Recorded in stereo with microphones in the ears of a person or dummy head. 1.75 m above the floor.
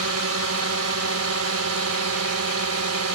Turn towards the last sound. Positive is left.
turn(degrees=-80)